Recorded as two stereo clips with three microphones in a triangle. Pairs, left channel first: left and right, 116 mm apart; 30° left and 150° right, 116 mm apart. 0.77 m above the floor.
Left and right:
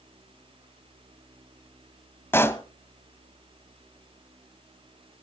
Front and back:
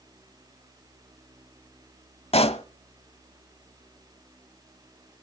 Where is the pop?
25° left, 1.0 m.